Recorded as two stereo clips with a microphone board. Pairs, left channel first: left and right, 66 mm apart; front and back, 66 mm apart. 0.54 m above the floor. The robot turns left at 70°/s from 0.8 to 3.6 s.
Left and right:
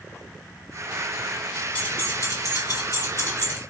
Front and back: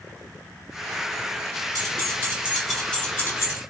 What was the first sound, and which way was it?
Keys jangling, 155° left.